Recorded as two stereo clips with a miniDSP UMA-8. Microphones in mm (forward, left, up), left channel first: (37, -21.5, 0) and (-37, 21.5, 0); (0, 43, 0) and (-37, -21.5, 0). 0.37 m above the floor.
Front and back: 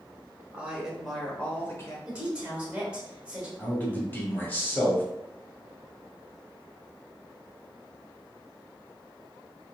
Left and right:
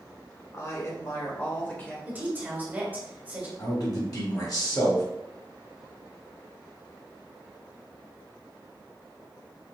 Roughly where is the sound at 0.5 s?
Left.